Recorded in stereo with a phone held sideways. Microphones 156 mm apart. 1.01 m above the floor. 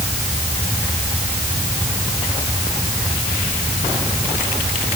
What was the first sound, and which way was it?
Only background noise.